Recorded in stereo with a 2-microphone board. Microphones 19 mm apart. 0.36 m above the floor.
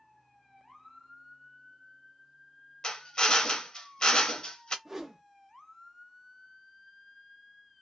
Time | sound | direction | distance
2.8 | a drill | 40° left (ahead or behind) | 0.6 m
4.8 | a whoosh | 15° right (ahead or behind) | 0.7 m